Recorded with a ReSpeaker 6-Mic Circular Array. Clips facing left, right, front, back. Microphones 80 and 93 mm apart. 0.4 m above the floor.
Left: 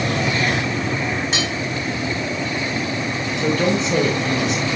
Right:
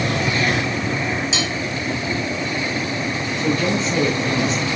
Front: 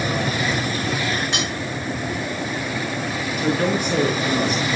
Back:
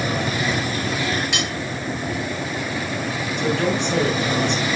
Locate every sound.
1.3 s cutlery clinking: 55° left, 4 m
3.4 s a woman speaking: 85° left, 6 m